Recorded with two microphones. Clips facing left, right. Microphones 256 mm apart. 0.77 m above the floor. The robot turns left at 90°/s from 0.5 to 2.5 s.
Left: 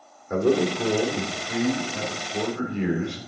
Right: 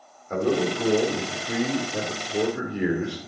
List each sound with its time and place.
0.3 s a man speaking: 10° left, 2 m; by 3.2 s 170° right, 2 m